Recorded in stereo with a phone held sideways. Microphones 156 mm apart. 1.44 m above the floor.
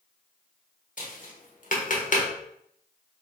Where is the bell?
I don't hear a bell.